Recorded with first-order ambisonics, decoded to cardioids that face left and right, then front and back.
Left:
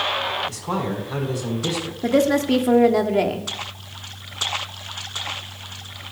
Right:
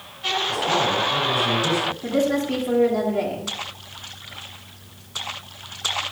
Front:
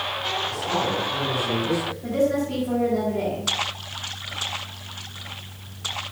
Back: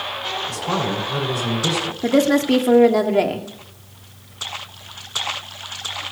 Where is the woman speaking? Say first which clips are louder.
Left 9 dB, back 7 dB; 145° left, 1.5 m.